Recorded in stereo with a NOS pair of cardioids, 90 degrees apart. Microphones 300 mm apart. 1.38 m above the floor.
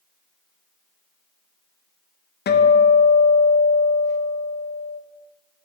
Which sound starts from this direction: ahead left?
A guitar, at 2.5 s.